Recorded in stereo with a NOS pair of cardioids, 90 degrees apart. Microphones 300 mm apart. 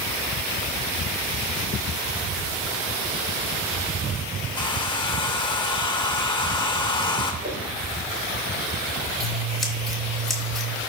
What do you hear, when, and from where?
4.6 s a hair dryer: 15° left, 1.4 m
7.4 s a whoosh: 30° right, 4 m
9.2 s scissors: straight ahead, 3.5 m